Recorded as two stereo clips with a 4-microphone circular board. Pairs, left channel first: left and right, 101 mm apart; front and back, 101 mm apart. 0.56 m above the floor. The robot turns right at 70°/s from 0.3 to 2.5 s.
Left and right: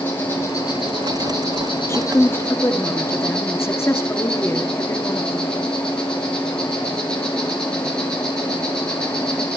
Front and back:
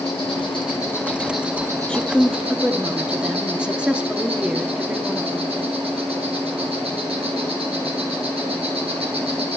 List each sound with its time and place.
0.0 s an insect: 20° left, 4.5 m; by 9.6 s 170° left, 4.5 m
1.9 s a woman speaking: 70° left, 0.9 m; by 5.6 s 115° left, 0.9 m